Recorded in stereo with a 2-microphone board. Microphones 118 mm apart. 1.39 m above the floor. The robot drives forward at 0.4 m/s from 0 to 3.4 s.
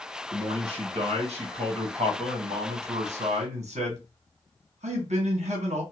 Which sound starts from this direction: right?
A man speaking, at 0.3 s.